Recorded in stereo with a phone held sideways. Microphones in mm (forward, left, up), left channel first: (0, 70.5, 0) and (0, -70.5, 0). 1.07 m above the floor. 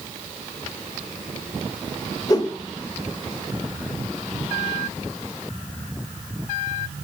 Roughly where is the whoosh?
Left.